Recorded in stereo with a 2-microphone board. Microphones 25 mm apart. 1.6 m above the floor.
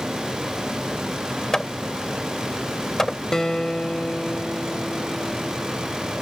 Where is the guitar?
25° left (ahead or behind).